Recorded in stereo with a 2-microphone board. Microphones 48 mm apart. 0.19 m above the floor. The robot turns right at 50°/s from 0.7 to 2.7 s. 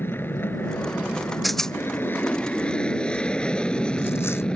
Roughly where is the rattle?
Centre.